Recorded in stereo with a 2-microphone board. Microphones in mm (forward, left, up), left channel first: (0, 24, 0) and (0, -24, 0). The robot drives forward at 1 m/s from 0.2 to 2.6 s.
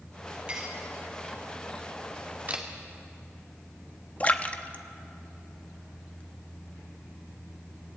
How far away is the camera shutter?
About 2 m.